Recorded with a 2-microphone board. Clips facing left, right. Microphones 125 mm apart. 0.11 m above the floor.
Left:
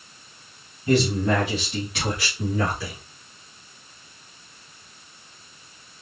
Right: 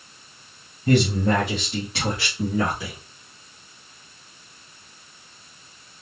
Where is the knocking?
No knocking in this recording.